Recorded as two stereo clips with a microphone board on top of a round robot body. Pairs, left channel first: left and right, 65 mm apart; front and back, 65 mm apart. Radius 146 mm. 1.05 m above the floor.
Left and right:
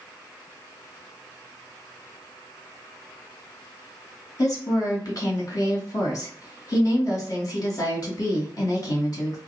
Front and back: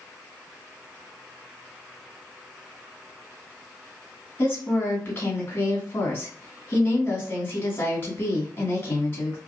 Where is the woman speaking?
60° left, 2 m.